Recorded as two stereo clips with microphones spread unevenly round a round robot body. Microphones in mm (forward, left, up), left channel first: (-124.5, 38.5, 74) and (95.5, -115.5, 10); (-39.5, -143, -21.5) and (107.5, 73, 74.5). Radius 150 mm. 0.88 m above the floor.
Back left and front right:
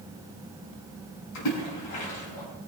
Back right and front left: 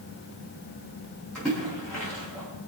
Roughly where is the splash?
Behind left.